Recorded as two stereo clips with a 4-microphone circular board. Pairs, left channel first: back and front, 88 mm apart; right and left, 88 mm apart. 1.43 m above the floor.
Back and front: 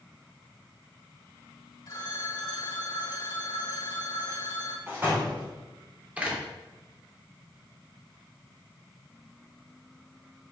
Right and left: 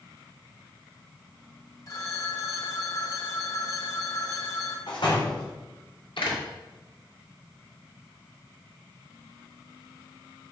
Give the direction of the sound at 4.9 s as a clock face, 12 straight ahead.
2 o'clock.